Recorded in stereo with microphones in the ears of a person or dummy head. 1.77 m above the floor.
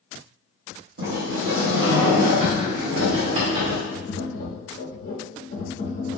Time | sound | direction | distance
1.0 | a sliding door | 70° right (ahead or behind) | 1.4 m
3.9 | tapping | 50° left (ahead or behind) | 1.1 m